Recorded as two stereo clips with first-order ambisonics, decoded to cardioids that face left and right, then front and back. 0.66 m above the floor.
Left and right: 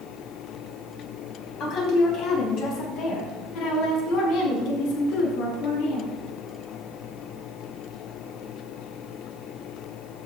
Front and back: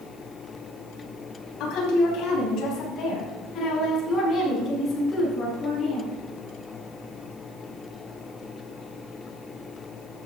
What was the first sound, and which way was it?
A woman speaking, 35° left.